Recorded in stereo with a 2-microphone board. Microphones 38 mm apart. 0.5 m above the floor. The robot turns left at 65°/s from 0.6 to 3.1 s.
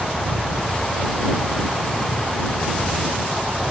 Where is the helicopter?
175° left; by 3.7 s 15° left.